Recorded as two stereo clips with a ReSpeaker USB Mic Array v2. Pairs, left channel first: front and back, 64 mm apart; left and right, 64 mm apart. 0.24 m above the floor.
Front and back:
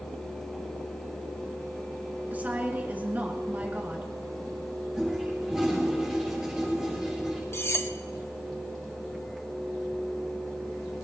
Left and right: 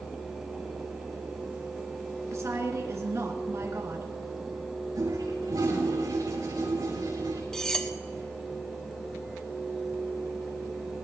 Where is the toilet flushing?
95° right, 6 m.